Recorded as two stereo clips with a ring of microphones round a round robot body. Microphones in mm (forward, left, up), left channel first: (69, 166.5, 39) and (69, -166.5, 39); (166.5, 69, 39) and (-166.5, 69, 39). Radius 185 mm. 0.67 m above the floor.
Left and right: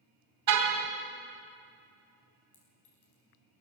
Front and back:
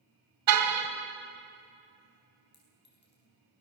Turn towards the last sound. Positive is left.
turn(degrees=60)